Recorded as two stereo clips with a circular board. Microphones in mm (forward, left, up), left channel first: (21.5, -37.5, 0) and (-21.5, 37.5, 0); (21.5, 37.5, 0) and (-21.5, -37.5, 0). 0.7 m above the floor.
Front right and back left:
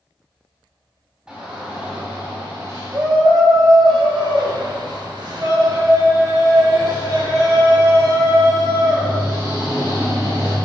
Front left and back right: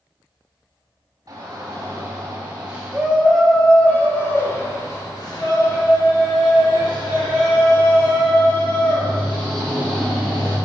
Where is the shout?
165° right, 1.6 m; by 10.6 s 70° left, 4 m.